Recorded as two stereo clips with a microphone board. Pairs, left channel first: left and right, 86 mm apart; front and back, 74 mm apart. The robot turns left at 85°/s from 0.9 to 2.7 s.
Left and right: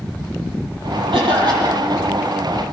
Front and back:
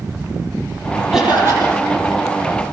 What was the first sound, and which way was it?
A cough, 95° right.